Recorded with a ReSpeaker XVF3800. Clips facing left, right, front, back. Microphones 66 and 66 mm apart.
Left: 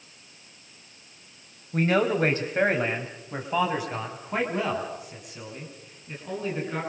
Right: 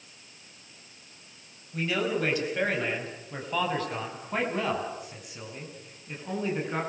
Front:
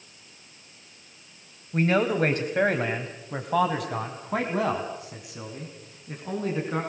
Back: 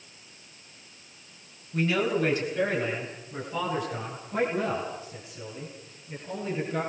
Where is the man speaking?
50° left, 3.5 m; by 6.8 s 10° right, 7 m.